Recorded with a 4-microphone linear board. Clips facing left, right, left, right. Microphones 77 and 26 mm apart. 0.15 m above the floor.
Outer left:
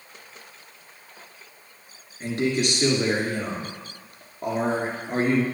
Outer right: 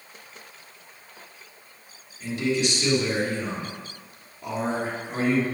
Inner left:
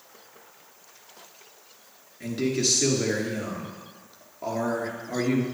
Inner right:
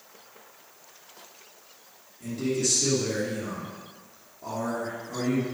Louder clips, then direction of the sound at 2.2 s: Outer left 1 dB, inner left 2 dB; 55° left (ahead or behind).